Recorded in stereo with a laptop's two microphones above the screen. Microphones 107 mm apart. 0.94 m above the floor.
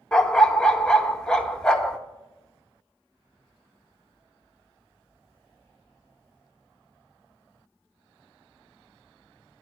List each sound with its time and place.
0.1 s a dog barking: 5° left (ahead or behind), 0.5 m